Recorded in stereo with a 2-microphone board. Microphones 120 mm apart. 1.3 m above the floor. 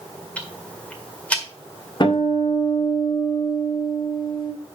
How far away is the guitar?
About 1.7 m.